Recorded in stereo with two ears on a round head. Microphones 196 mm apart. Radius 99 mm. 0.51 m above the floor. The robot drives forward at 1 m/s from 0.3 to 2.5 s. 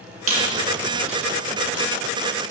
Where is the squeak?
75° right (ahead or behind), 4 m; by 1.8 s 55° right (ahead or behind), 4.5 m.